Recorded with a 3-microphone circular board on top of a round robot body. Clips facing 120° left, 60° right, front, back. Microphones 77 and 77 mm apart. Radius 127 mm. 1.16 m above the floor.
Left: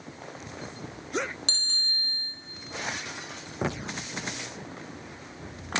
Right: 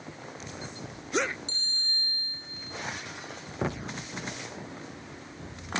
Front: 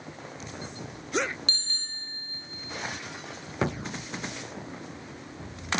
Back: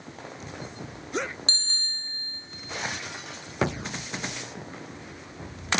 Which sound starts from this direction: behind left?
A bicycle bell, at 1.5 s.